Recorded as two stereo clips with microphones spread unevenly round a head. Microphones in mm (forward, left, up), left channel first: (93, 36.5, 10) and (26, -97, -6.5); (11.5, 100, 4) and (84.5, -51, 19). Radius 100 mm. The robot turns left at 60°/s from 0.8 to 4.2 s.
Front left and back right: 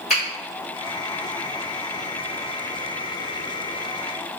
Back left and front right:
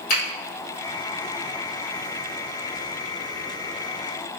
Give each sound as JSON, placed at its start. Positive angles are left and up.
{"t": 0.1, "sound": "a finger snap", "azimuth_deg": 155, "distance_m": 1.8}